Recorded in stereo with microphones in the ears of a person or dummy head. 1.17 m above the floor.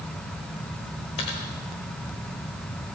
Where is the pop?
I don't hear a pop.